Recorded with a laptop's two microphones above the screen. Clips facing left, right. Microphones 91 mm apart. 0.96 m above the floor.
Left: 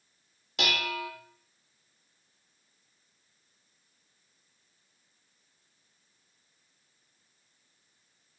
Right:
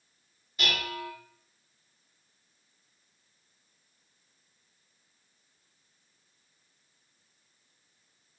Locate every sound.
0.6 s dishes clattering: 80° left, 1.0 m